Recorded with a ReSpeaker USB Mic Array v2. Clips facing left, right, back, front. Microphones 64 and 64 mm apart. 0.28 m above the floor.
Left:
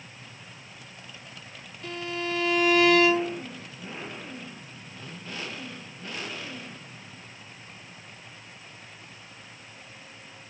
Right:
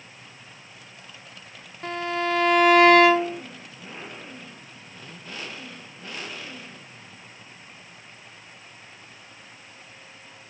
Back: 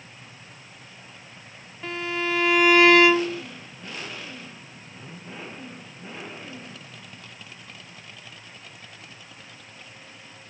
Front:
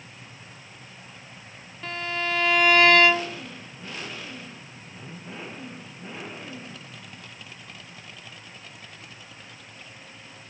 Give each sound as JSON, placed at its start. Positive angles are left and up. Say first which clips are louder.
{"t": 1.8, "sound": "a violin", "louder": "right 6 dB, back 2 dB", "azimuth_deg": -100, "distance_m": 0.6}